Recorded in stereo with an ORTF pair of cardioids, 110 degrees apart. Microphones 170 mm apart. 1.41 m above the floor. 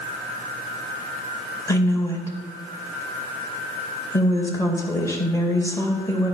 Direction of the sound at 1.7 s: 15° left.